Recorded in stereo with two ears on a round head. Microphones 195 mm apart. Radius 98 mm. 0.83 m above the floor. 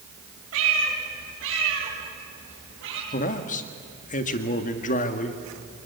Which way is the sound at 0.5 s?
75° right (ahead or behind).